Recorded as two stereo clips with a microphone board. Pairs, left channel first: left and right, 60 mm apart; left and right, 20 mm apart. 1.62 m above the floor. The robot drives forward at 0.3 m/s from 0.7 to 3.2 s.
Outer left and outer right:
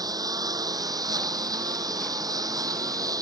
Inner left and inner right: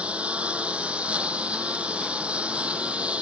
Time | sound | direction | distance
0.0 | a lawn mower | 75° right (ahead or behind) | ?